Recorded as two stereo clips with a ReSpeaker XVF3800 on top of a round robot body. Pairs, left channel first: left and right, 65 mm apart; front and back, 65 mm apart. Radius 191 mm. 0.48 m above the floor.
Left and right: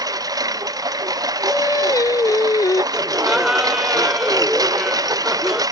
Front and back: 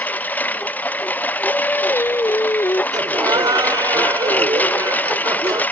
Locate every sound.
0.0 s a lawn mower: 65° right
1.5 s singing: 55° left
2.9 s laughter: 175° right